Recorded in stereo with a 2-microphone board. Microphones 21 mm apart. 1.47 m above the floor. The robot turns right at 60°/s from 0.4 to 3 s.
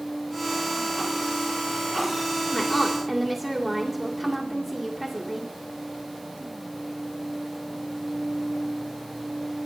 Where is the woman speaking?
20° left (ahead or behind), 2 m; by 5.5 s 5° right (ahead or behind), 2 m.